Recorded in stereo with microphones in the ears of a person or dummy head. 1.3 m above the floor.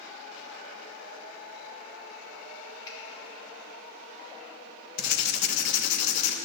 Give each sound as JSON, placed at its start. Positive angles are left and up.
{"t": 2.9, "sound": "a finger snap", "side_deg": 20, "distance_m": 2.5}
{"t": 5.0, "sound": "writing", "side_deg": 55, "distance_m": 1.1}